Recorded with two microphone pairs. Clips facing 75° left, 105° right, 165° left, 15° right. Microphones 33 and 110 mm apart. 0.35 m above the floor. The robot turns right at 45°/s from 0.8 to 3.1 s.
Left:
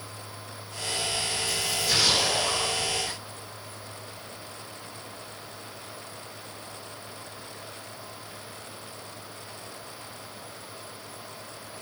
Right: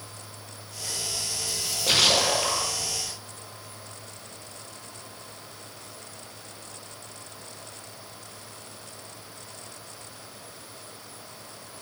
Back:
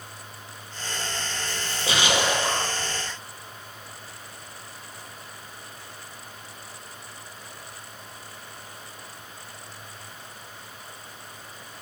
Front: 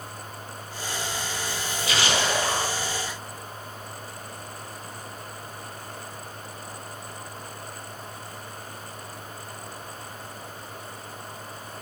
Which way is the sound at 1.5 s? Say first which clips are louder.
Right 3 dB, back 1 dB; 150° right.